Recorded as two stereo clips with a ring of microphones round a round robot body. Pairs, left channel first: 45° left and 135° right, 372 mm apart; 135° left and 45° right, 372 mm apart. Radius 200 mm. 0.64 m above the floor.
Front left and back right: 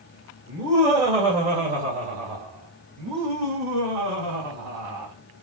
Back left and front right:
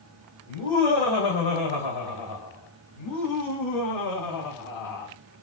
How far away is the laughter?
About 3 m.